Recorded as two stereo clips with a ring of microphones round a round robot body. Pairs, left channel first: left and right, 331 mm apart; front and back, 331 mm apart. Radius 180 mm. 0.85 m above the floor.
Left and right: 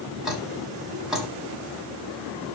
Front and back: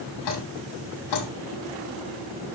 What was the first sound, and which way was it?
Dripping, straight ahead.